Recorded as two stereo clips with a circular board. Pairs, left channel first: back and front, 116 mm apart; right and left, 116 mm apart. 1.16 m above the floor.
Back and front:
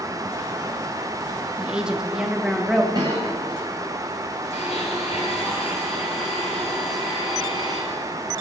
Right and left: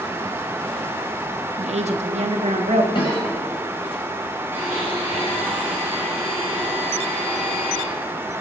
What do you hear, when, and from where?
1.6 s a woman speaking: 80° left, 1.3 m; by 2.8 s 85° left, 2 m
2.9 s a cough: 50° right, 6.5 m
4.5 s a blender: 160° left, 7.5 m